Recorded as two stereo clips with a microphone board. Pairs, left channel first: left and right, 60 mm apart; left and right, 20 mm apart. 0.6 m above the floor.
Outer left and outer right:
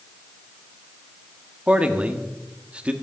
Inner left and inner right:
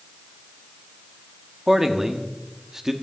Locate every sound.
1.7 s a man speaking: 20° right (ahead or behind), 1.3 m